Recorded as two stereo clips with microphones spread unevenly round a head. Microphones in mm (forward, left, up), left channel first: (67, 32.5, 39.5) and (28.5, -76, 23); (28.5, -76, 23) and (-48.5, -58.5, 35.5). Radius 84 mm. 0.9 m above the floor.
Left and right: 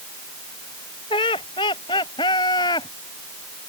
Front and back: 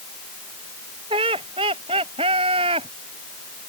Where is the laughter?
130° left; by 2.9 s 135° left.